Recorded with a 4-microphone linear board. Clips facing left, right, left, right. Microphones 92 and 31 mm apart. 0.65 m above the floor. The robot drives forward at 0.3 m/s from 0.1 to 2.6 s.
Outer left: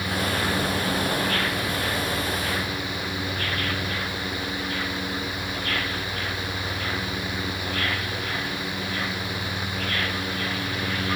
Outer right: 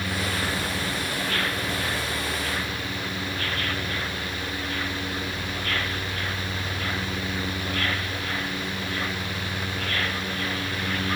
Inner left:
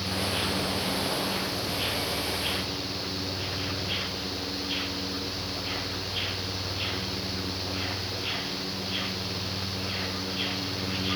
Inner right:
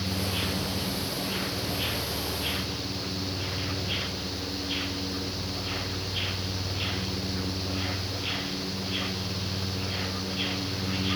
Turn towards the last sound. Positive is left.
No sound to turn to.